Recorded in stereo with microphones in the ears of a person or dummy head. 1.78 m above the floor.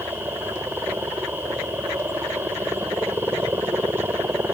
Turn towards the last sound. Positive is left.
turn(degrees=-10)  # may be behind; listen again after turning